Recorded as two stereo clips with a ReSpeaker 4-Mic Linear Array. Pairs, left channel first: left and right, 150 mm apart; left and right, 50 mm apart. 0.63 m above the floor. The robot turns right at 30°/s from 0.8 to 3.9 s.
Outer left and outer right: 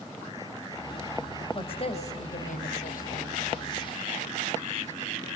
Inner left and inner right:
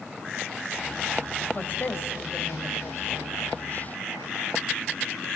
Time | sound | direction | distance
1.5 | a woman speaking | 35° left | 3.5 m